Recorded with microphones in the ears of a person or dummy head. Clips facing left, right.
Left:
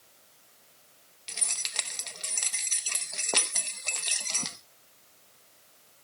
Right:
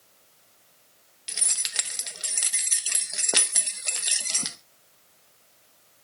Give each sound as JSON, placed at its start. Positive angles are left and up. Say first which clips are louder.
{"t": 1.3, "sound": "keys jangling", "louder": "right 1 dB", "side_deg": -15, "distance_m": 0.8}